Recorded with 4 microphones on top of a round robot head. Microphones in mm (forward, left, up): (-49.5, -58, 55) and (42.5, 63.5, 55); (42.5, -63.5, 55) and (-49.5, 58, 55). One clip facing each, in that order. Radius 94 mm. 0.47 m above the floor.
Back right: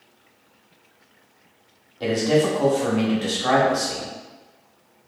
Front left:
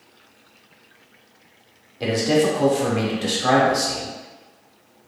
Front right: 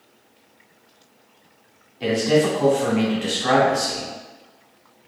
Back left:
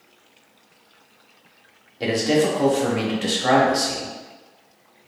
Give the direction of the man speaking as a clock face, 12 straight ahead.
8 o'clock.